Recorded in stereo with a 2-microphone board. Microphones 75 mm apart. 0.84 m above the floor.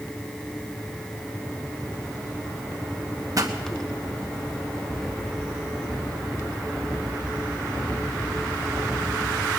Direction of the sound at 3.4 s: 50° right (ahead or behind).